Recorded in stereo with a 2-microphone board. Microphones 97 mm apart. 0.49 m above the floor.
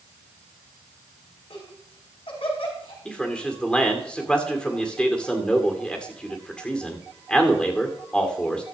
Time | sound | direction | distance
1.5 | laughter | 70° left (ahead or behind) | 5.5 m
3.0 | a man speaking | 10° left (ahead or behind) | 1.7 m